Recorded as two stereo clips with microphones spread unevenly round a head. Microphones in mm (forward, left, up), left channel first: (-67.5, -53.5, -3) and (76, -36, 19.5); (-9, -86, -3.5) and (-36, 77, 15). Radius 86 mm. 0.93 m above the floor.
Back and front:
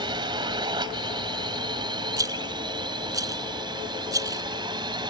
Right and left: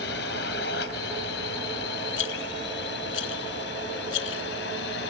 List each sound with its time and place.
0.0 s a drone: 50° right
2.2 s a rattle: 60° right